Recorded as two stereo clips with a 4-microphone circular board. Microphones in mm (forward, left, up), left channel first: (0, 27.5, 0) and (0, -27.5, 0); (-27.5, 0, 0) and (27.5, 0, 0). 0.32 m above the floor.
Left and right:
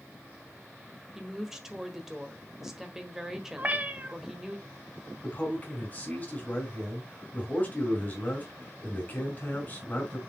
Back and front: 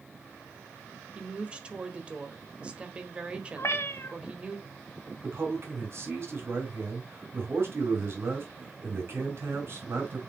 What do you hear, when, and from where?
1.1 s a woman speaking: 20° right, 1.4 m
3.6 s a cat meowing: 150° right, 1.0 m
5.2 s a man speaking: 35° left, 4 m